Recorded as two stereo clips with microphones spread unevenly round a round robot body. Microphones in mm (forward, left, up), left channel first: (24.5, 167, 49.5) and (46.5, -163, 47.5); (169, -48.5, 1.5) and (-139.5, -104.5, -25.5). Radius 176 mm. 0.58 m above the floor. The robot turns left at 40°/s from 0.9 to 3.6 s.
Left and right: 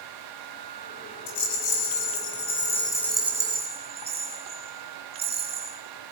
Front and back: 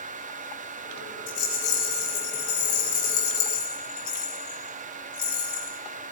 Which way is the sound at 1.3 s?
80° left.